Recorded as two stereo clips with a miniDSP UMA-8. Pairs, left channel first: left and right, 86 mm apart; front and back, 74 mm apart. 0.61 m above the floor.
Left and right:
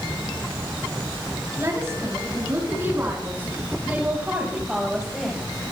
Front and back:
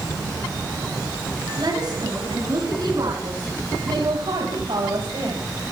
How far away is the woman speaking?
About 8 m.